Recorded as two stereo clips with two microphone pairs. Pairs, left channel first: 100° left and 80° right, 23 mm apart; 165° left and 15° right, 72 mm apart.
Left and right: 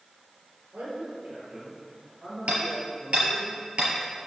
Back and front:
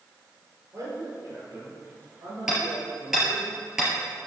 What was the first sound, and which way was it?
A man speaking, 60° right.